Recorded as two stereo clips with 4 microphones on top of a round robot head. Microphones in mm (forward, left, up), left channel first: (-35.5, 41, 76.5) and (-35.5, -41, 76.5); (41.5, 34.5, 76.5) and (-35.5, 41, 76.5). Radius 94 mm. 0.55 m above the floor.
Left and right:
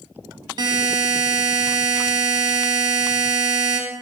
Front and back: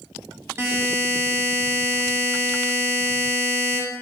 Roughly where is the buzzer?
Behind right.